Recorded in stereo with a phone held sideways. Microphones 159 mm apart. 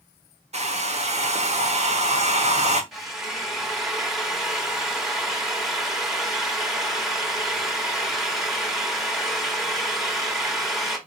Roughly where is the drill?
Centre.